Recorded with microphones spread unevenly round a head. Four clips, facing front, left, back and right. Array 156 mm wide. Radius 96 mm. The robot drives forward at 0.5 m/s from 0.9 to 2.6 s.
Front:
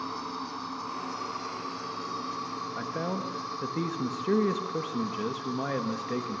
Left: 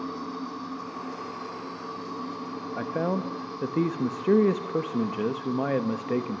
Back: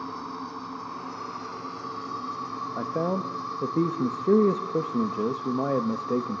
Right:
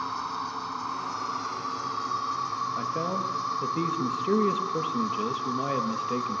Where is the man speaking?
150° left, 1.2 m.